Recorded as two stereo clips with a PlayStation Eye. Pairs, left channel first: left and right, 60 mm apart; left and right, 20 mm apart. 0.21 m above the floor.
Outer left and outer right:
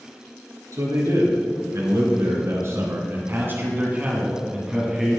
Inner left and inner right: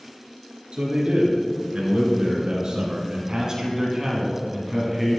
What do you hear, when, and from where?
0.7 s a man speaking: 65° right (ahead or behind), 3.5 m; by 5.2 s centre (ahead or behind), 2 m